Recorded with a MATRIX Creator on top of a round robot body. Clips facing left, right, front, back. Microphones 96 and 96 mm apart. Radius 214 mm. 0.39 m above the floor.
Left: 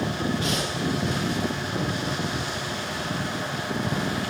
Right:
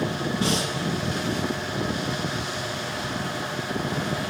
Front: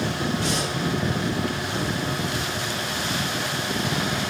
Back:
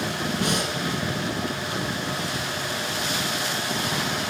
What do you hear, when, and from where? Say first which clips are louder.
0.4 s breathing: right 2 dB, even; 145° right, 8.5 m